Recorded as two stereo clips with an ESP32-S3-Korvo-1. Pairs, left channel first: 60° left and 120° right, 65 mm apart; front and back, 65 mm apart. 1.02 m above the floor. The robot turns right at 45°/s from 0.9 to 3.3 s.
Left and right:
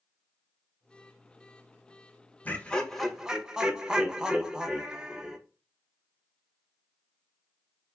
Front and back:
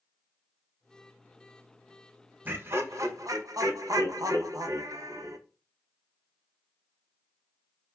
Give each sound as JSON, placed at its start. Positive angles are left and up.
{"t": 2.5, "sound": "laughter", "azimuth_deg": 125, "distance_m": 0.5}